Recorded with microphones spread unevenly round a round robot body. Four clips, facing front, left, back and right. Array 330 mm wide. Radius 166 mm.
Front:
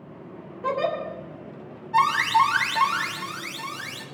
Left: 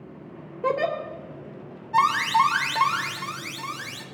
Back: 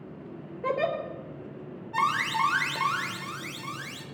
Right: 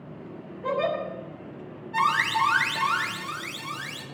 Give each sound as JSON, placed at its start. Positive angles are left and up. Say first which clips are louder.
{"t": 0.6, "sound": "a giggle", "louder": "left 2 dB, front 2 dB", "azimuth_deg": 100, "distance_m": 2.5}
{"t": 1.9, "sound": "an alarm", "louder": "left 4 dB, front 7 dB", "azimuth_deg": 135, "distance_m": 1.8}